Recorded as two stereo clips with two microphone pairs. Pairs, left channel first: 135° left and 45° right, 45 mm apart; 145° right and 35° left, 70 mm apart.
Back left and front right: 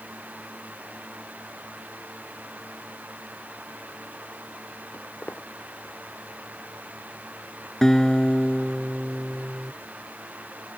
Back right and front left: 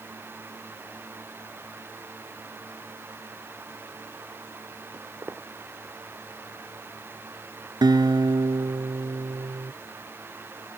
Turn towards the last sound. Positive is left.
turn(degrees=55)